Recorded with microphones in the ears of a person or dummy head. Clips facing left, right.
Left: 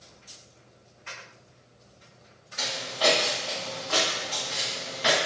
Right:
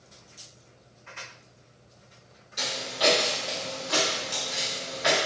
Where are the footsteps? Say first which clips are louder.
Even; 25° right (ahead or behind), 1.5 m; by 5.2 s 40° left (ahead or behind), 1.6 m.